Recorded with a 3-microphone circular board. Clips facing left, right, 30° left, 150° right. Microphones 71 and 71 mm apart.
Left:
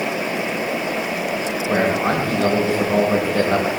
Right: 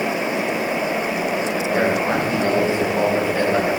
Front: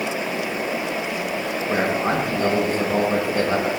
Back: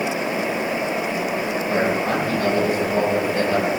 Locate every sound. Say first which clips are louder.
1.7 s a man speaking: left 2 dB, even; 85° left, 9.5 m